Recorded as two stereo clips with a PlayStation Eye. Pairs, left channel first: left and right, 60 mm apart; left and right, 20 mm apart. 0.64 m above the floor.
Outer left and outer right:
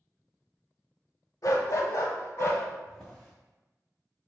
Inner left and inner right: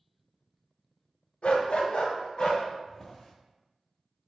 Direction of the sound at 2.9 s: 10° left (ahead or behind).